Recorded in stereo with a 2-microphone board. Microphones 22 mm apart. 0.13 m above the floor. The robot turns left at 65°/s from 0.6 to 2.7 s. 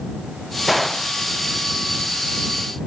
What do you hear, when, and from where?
0.7 s a gunshot: 10° right (ahead or behind); by 1.1 s 20° left (ahead or behind)